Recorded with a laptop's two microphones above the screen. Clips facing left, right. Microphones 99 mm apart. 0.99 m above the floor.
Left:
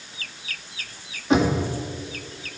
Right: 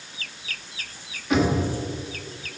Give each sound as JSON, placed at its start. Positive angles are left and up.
{"t": 1.3, "sound": "knocking", "side_deg": 30, "distance_m": 1.9}